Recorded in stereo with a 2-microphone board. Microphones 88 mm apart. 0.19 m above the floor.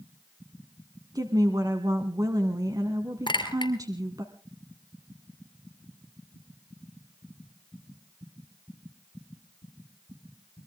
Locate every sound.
1.1 s a woman speaking: 45° right (ahead or behind), 1.5 m
3.3 s a clink: 65° left (ahead or behind), 2.5 m